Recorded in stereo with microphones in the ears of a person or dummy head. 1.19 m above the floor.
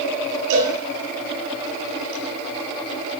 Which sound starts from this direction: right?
A cowbell, at 0.5 s.